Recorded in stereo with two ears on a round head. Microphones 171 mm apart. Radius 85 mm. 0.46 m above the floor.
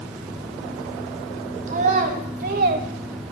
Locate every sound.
1.7 s a child speaking: 45° right (ahead or behind), 1.8 m; by 2.9 s 50° right (ahead or behind), 1.0 m